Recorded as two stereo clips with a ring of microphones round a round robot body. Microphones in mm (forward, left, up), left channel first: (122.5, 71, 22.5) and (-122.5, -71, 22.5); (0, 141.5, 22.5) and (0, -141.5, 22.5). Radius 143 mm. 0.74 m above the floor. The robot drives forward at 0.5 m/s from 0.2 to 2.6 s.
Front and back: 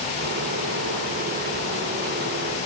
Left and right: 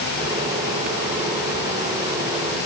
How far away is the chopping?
I don't hear chopping.